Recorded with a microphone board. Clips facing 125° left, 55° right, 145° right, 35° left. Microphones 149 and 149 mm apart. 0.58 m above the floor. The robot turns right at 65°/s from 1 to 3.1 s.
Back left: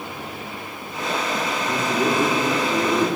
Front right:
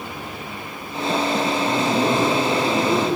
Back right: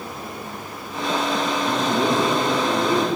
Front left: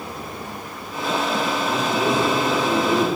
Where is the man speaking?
110° right, 6 m; by 3.1 s 20° right, 6 m.